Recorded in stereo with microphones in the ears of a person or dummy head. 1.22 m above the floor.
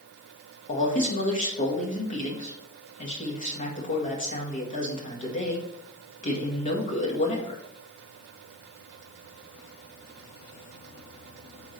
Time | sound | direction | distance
0.7 | a man speaking | 45° left (ahead or behind) | 1.5 m